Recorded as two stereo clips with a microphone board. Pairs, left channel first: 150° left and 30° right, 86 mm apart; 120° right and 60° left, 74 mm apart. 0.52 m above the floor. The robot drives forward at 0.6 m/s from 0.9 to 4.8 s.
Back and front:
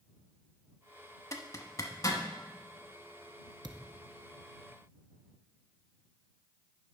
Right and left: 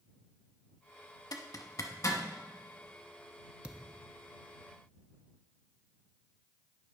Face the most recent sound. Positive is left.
turn(degrees=-105)